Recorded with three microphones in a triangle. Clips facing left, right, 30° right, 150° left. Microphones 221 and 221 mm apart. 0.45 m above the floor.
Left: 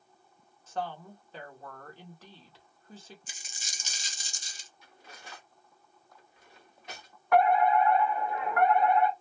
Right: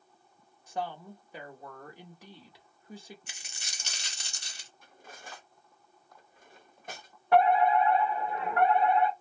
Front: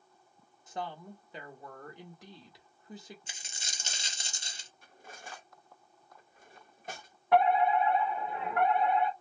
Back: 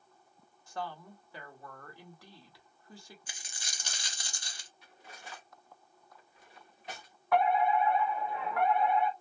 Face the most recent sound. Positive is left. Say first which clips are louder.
# even, front 2 dB
turn(degrees=-65)